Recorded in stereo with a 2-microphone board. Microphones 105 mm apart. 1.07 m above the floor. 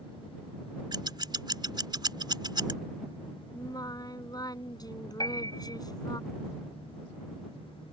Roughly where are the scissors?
Right.